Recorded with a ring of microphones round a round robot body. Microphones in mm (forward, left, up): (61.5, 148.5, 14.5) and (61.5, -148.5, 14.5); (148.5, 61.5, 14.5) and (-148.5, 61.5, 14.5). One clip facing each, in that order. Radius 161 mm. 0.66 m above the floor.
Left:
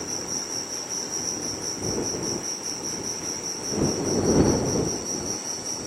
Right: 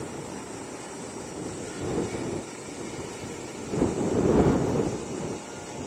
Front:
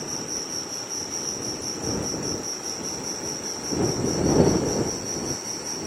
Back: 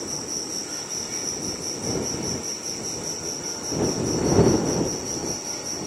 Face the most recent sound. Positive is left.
turn(degrees=90)